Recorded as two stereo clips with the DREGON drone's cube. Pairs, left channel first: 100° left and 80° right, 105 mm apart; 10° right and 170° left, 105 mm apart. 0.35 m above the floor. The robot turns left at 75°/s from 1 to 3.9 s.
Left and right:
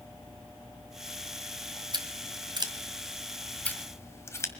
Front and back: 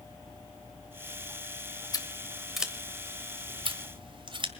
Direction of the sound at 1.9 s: 55° right.